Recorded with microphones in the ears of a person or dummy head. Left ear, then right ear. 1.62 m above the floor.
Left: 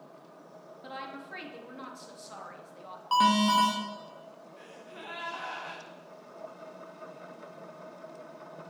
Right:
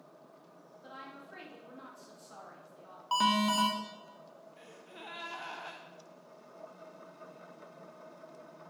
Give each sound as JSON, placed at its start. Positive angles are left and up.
{"t": 0.8, "sound": "a woman speaking", "side_deg": 15, "distance_m": 1.2}
{"t": 3.1, "sound": "an alarm", "side_deg": -5, "distance_m": 1.3}
{"t": 4.6, "sound": "a gasp", "side_deg": -5, "distance_m": 0.7}